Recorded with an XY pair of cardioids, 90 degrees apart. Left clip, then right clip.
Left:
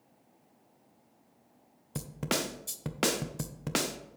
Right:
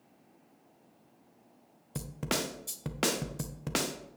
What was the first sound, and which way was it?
A snare drum, 5° left.